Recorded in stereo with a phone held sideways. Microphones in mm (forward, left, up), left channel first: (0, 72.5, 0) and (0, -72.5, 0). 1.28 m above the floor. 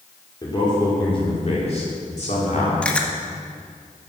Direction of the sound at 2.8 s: 10° left (ahead or behind).